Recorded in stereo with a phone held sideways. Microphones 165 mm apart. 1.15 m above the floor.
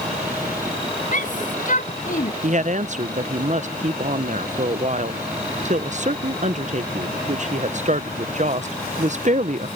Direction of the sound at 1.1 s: 55° left (ahead or behind).